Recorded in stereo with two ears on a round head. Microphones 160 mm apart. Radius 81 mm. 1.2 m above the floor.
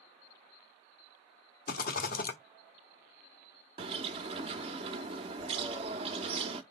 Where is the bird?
30° right (ahead or behind), 0.9 m.